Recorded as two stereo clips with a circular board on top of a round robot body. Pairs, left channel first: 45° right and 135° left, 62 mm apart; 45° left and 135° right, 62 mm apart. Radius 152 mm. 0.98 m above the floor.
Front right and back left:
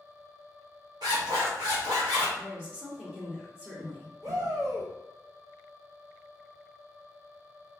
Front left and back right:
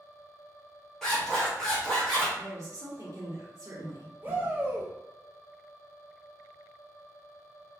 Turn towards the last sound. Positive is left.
turn(degrees=160)